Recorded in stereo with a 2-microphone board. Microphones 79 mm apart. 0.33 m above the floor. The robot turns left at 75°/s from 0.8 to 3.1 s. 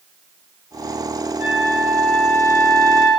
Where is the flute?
40° right, 3.5 m; by 3.1 s 165° right, 3.5 m.